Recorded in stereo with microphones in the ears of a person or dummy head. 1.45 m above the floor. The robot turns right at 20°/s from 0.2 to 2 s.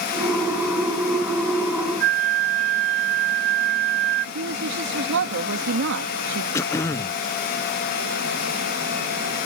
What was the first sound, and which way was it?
A flute, 70° right (ahead or behind).